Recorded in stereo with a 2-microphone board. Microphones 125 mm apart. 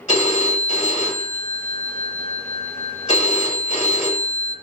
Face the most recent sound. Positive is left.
turn(degrees=60)  # may be behind; listen again after turning